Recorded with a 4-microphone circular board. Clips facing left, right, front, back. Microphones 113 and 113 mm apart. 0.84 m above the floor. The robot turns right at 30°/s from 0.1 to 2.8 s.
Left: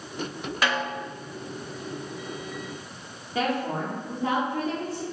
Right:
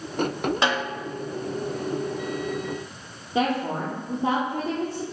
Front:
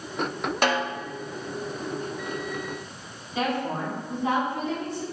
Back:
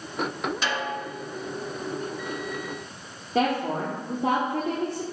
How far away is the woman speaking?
About 1.7 m.